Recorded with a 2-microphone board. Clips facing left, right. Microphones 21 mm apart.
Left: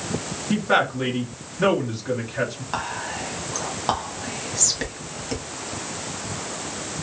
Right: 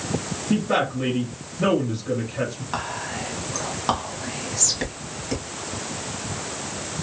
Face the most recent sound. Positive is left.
turn(degrees=5)  # may be behind; listen again after turning